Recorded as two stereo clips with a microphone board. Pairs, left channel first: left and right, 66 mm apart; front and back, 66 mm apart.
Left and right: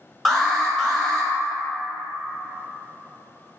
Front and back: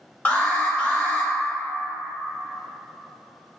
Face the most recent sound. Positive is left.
turn(degrees=5)